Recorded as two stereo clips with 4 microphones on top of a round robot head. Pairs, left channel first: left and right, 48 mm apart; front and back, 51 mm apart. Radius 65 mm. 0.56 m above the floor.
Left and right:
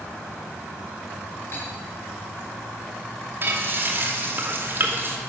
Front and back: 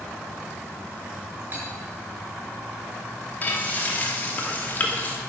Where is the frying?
50° right, 2.5 m.